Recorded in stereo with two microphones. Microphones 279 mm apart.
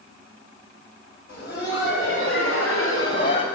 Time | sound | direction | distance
1.3 | laughter | 40° left (ahead or behind) | 3 m